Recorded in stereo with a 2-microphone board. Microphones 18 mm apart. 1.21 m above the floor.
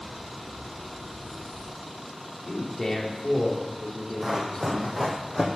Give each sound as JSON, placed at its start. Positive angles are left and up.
{"t": 2.5, "sound": "a man speaking", "side_deg": 30, "distance_m": 3.0}
{"t": 4.2, "sound": "running footsteps", "side_deg": -10, "distance_m": 3.0}